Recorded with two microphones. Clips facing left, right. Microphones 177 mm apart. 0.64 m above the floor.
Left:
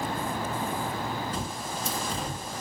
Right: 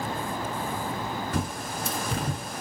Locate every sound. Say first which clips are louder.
1.3 s a bird: right 3 dB; 70° right (ahead or behind), 1.3 m